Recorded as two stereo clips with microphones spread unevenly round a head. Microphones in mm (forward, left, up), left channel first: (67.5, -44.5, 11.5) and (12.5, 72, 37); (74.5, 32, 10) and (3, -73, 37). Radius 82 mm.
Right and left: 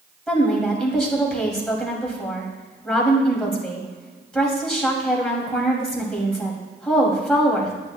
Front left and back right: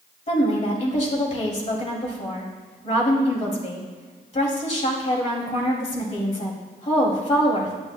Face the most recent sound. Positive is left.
turn(degrees=20)